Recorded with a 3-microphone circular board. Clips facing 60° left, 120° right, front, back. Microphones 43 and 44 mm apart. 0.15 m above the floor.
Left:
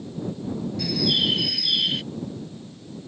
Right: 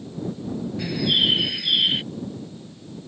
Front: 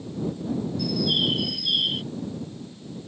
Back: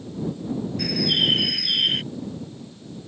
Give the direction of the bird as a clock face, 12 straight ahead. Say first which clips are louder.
Right 2 dB, back 3 dB; 6 o'clock.